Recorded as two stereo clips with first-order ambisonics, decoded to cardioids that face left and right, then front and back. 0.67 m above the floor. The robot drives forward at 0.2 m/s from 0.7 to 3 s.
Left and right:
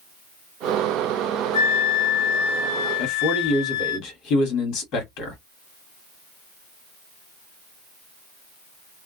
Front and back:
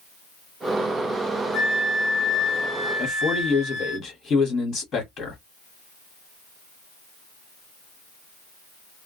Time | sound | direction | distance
1.5 | a flute | 75° left | 0.5 m
3.0 | a man speaking | 70° left | 1.6 m